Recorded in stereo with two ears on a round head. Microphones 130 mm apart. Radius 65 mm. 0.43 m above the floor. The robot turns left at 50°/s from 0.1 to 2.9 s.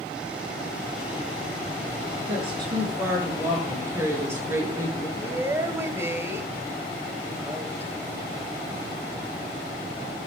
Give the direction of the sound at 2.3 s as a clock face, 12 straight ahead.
4 o'clock.